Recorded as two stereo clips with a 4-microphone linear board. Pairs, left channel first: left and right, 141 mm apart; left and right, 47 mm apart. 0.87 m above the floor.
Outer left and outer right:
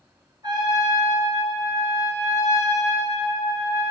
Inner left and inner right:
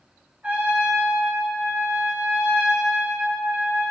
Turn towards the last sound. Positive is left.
turn(degrees=-30)  # may be behind; listen again after turning